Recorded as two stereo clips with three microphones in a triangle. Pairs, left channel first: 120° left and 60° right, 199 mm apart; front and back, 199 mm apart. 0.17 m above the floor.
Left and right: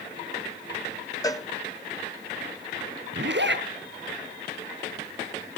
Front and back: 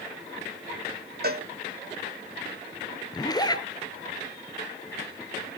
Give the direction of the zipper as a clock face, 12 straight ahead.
2 o'clock.